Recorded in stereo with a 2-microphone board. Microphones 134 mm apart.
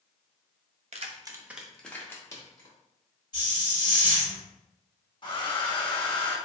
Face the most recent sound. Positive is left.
turn(degrees=35)  # may be behind; listen again after turning